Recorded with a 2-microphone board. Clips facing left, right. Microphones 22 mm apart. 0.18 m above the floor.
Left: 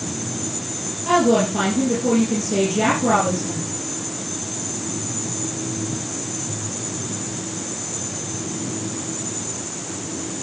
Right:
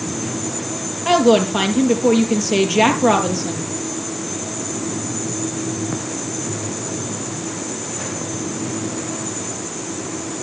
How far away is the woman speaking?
About 4.5 m.